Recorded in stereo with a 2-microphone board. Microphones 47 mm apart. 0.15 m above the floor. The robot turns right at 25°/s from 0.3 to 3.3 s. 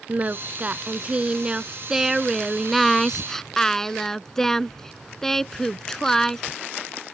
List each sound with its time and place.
0.1 s singing: 60° right; by 6.6 s 15° left